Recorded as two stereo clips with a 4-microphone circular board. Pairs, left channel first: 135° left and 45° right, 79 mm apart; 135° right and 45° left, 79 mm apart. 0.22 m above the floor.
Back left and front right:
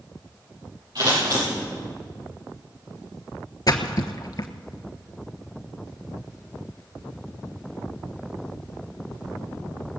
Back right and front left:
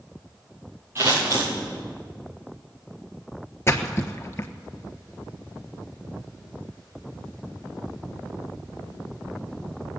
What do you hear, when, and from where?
0.9 s scissors: 15° right, 7.5 m
3.7 s a splash: 170° left, 1.1 m